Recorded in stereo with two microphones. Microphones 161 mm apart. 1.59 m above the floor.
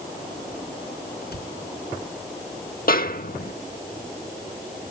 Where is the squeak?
No squeak in this recording.